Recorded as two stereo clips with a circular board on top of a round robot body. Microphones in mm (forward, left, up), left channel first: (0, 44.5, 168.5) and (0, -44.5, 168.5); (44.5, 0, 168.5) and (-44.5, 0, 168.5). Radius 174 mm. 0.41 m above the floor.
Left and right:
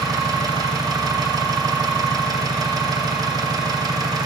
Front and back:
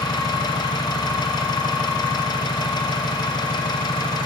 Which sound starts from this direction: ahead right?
An engine running, at 0.0 s.